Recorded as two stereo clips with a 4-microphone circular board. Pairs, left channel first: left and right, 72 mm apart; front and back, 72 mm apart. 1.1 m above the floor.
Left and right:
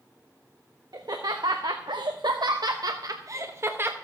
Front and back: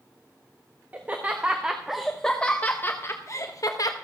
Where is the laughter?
115° right, 1.2 m; by 3.9 s 30° right, 1.1 m.